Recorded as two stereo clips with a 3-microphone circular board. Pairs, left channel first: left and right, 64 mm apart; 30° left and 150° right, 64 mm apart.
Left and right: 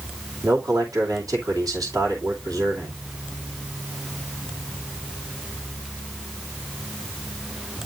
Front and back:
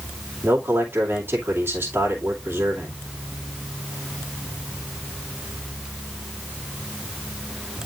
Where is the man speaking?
95° right, 2.5 m.